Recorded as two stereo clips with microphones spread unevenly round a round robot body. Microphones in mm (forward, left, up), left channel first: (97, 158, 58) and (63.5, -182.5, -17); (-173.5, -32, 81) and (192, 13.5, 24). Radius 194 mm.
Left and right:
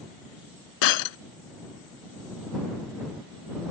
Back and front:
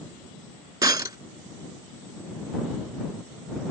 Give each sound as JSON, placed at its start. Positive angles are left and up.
{"t": 0.8, "sound": "breaking glass", "azimuth_deg": 90}